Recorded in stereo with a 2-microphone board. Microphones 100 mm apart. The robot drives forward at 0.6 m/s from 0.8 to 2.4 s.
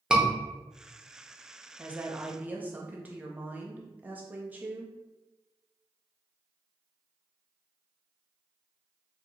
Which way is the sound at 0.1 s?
10° right (ahead or behind).